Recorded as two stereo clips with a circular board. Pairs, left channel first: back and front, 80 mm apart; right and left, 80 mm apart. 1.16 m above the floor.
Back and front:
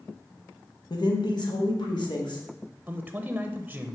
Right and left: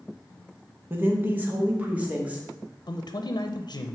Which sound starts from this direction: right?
A man speaking, at 2.9 s.